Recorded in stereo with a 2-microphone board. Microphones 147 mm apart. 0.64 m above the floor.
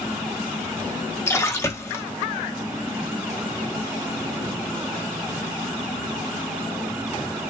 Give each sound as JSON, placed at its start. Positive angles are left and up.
{"t": 1.3, "sound": "a splash", "side_deg": 20, "distance_m": 0.6}